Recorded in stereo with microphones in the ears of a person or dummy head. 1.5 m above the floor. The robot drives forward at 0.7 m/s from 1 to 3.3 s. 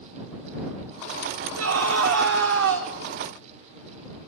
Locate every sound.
1.6 s a scream: 80° right, 3.5 m; by 2.9 s 70° right (ahead or behind), 4 m